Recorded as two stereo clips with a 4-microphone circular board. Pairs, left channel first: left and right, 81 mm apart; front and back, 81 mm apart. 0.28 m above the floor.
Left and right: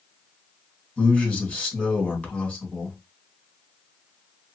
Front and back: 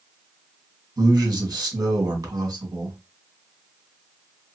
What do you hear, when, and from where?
1.0 s a man speaking: 160° left, 1.7 m